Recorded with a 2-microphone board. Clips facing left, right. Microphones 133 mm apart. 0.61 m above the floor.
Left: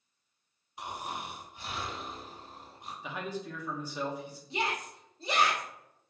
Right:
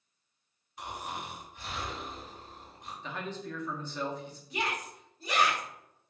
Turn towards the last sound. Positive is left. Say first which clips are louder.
# left 1 dB
turn(degrees=25)  # may be behind; listen again after turning